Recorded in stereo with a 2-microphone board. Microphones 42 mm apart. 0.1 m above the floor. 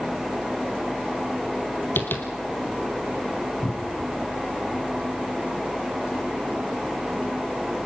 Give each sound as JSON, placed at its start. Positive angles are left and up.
{"t": 2.0, "sound": "tapping", "side_deg": 55, "distance_m": 3.0}
{"t": 3.6, "sound": "a cupboard door", "side_deg": 30, "distance_m": 2.0}